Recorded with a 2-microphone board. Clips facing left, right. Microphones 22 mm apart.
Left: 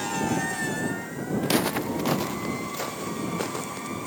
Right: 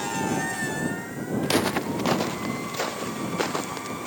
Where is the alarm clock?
No alarm clock in this recording.